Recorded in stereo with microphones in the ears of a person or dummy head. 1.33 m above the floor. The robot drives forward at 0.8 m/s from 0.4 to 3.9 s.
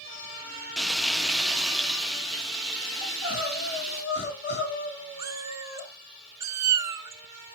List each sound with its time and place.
0.8 s frying: centre (ahead or behind), 0.5 m
3.0 s crying: 55° left (ahead or behind), 4 m; by 5.9 s 60° left (ahead or behind), 3.5 m
5.2 s a cat meowing: 25° right (ahead or behind), 0.9 m